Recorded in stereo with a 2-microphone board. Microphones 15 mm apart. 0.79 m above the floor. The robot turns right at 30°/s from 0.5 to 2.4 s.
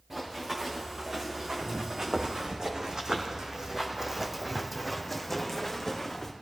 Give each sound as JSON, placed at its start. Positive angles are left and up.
{"t": 0.1, "sound": "running footsteps", "side_deg": -30, "distance_m": 4.0}